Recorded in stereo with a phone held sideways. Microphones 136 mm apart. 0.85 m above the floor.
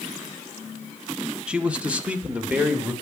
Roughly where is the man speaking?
Centre.